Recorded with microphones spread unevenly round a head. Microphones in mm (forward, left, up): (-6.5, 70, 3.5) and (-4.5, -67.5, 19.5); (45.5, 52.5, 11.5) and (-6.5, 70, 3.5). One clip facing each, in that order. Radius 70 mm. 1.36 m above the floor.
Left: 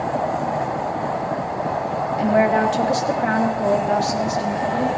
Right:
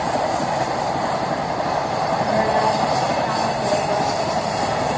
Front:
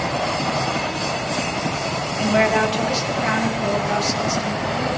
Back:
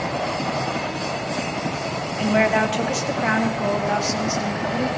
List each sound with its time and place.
2.2 s a woman speaking: 75° left, 2 m; by 4.9 s 120° left, 3 m